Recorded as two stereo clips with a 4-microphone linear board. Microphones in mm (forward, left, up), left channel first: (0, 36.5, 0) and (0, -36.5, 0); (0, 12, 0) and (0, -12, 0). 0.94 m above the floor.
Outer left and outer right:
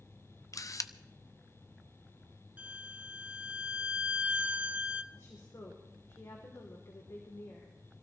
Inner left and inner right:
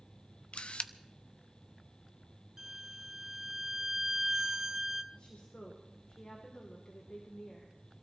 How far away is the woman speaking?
About 2.5 m.